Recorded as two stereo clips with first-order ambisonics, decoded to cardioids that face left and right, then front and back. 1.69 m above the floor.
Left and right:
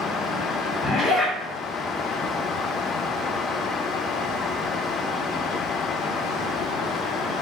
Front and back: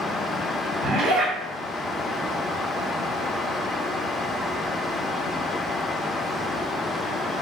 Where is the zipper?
155° left, 1.6 m.